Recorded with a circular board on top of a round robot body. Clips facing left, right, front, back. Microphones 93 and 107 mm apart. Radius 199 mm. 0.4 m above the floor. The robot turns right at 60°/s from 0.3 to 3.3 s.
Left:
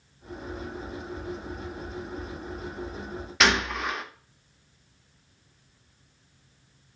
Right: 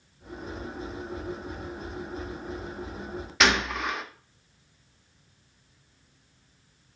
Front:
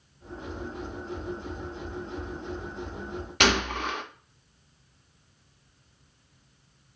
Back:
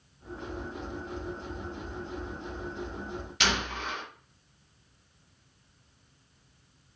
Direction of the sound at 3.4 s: Straight ahead.